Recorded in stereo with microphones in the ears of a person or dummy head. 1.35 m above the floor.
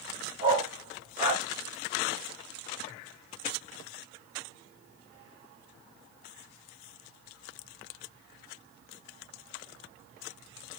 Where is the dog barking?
40° right (ahead or behind), 3.5 m; by 1.4 s 20° right (ahead or behind), 2.5 m.